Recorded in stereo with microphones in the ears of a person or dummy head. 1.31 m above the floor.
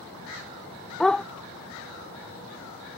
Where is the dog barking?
Centre (ahead or behind).